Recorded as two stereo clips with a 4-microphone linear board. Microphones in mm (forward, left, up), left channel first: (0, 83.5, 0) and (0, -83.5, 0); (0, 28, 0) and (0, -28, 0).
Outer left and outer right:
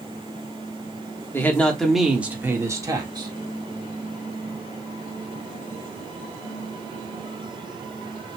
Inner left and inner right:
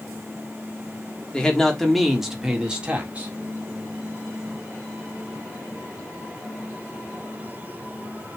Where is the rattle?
No rattle in this recording.